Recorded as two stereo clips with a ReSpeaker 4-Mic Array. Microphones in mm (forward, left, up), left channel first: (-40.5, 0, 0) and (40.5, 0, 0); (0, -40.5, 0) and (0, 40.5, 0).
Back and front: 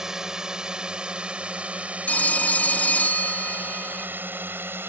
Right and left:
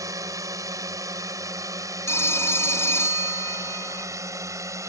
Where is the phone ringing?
120° right.